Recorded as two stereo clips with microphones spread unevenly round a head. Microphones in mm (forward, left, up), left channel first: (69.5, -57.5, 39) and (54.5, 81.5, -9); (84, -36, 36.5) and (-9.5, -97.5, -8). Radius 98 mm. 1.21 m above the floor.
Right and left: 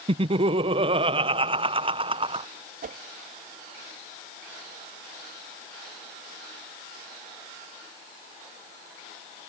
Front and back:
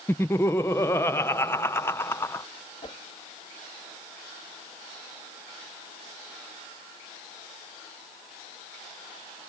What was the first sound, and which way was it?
Laughter, 120° left.